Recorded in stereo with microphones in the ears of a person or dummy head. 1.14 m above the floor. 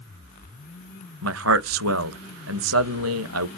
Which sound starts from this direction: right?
A man speaking, at 1.2 s.